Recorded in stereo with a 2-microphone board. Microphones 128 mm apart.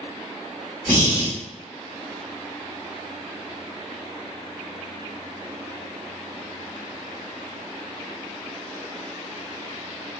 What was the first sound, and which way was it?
Breathing, 20° left (ahead or behind).